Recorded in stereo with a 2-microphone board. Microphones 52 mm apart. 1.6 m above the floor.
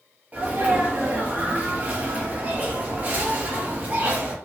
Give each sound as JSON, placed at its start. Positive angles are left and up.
{"t": 0.3, "sound": "a sneeze", "side_deg": -30, "distance_m": 0.8}